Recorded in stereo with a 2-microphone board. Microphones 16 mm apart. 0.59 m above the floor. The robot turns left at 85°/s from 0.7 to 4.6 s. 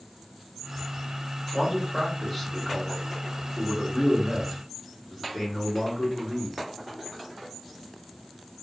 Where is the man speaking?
125° right, 1.5 m; by 6.6 s 25° right, 1.5 m.